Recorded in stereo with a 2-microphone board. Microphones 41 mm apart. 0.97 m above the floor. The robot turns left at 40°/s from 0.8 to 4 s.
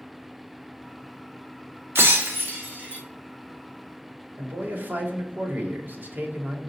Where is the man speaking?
55° right (ahead or behind), 1.3 m.